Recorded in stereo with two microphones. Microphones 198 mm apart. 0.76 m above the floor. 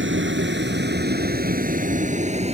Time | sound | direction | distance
0.0 | a vehicle | 75° right (ahead or behind) | ?